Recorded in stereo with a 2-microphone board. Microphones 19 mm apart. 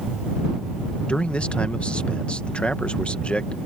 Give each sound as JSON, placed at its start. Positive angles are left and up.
{"t": 1.1, "sound": "a man speaking", "side_deg": 75}